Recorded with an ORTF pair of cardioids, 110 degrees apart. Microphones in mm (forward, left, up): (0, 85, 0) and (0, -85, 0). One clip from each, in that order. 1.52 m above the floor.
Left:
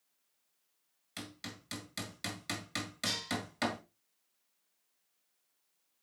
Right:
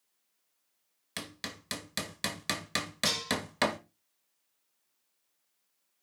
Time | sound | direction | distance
1.2 | hammering | 60° right | 1.7 m
3.0 | dishes clattering | 70° right | 4.5 m